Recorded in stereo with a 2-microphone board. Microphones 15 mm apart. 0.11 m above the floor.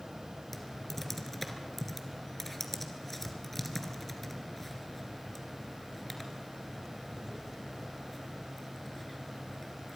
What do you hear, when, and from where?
0.5 s typing on a keyboard: 10° left (ahead or behind), 2 m